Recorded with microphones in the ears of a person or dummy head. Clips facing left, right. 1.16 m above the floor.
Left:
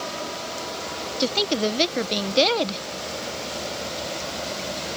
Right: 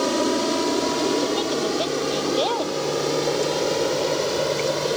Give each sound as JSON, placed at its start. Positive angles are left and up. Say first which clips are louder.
{"t": 0.0, "sound": "an aircraft", "louder": "right 12 dB", "side_deg": -65}
{"t": 1.2, "sound": "a woman speaking", "louder": "right 1 dB", "side_deg": 35}